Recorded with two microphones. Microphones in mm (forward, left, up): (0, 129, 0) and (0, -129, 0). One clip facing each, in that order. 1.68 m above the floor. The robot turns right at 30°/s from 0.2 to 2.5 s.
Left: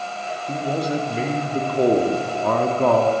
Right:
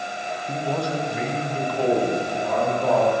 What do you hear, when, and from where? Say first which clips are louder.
0.5 s a man speaking: left 3 dB; 10° left, 0.9 m; by 3.1 s 70° left, 0.9 m